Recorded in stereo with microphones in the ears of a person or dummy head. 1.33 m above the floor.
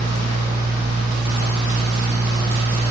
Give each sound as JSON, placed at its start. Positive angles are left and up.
{"t": 0.0, "sound": "a fan", "side_deg": 20, "distance_m": 1.7}